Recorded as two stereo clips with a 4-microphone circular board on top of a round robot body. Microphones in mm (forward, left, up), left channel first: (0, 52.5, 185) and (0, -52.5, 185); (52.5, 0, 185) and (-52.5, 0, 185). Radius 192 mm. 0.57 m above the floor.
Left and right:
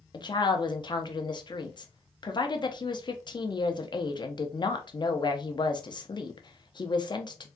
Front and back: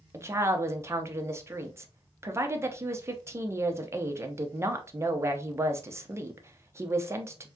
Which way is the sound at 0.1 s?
120° left.